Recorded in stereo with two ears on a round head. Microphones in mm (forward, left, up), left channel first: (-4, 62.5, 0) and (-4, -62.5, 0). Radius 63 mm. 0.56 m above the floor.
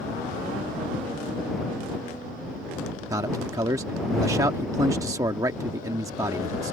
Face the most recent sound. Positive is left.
turn(degrees=-20)  # may be behind; listen again after turning